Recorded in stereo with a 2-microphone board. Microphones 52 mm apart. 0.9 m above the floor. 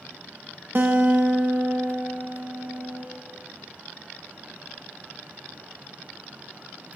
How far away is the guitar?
About 0.9 m.